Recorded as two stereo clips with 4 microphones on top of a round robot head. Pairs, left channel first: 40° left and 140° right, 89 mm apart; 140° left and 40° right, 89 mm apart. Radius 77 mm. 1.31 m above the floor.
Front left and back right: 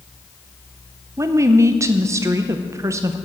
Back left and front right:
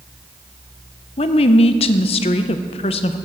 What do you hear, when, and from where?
1.2 s a woman speaking: 160° left, 0.6 m